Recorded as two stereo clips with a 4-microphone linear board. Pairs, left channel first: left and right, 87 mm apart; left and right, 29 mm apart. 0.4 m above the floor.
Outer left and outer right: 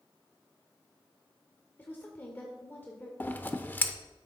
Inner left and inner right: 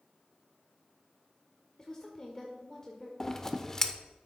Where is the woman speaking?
20° left (ahead or behind), 1.5 m.